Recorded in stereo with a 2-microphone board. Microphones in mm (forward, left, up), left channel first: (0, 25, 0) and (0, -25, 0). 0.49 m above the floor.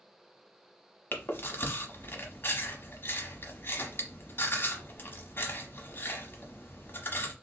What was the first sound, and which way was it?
Chewing, 45° left (ahead or behind).